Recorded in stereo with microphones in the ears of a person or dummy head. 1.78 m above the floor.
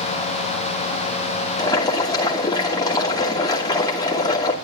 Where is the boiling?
20° left (ahead or behind), 2.5 m.